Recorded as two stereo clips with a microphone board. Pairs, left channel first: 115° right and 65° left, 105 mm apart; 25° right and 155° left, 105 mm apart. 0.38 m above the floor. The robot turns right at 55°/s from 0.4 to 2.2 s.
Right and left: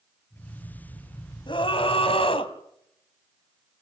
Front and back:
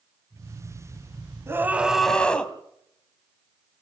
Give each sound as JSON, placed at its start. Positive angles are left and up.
{"t": 1.5, "sound": "a scream", "azimuth_deg": -140, "distance_m": 2.5}